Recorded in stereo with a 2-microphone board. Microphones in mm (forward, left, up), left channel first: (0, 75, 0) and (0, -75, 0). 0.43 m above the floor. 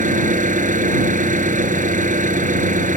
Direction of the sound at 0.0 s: 60° right (ahead or behind).